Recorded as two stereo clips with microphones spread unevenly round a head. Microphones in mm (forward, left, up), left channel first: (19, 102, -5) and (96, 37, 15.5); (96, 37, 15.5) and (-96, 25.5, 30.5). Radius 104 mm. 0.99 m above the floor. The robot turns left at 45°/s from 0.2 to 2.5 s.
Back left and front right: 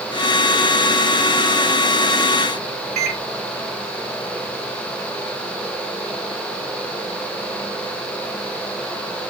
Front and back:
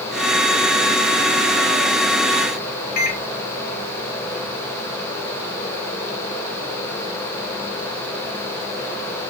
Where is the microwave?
45° right, 1.2 m.